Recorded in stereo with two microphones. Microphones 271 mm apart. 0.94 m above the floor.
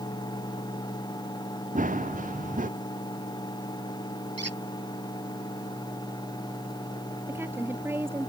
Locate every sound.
1.8 s running footsteps: 30° right (ahead or behind)
4.4 s a squeak: 80° right
7.3 s a woman speaking: 10° right (ahead or behind)